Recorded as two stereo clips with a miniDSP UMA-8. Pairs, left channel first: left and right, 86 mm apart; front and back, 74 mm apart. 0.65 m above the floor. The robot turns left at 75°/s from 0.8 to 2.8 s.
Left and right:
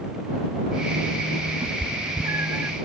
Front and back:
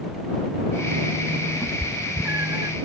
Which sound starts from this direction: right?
A cat meowing, at 1.6 s.